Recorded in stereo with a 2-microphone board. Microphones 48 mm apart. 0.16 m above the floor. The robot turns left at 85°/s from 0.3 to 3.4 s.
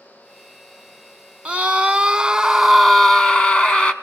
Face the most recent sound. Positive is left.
turn(degrees=20)  # may be behind; listen again after turning